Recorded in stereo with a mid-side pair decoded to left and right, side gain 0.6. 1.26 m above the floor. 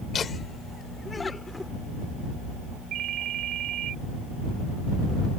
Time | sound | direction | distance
0.1 | laughter | 35° left | ?
2.9 | a ringtone | 55° right | ?